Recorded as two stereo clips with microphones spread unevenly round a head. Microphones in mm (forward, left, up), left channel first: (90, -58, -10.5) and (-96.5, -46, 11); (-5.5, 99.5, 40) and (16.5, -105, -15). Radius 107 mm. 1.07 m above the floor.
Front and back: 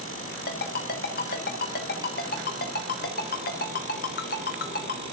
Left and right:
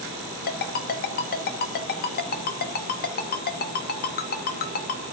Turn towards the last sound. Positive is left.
turn(degrees=50)